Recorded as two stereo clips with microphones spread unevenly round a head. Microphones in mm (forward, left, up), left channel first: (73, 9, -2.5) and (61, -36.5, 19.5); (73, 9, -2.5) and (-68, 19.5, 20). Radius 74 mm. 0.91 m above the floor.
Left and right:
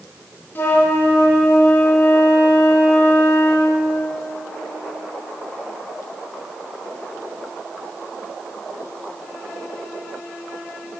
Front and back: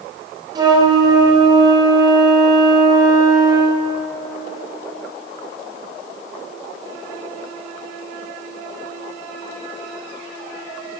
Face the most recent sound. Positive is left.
turn(degrees=110)